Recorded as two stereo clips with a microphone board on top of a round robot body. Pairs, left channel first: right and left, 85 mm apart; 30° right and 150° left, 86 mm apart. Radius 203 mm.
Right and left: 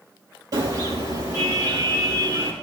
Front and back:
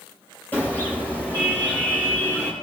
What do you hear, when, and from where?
0.5 s a car horn: 40° left, 9 m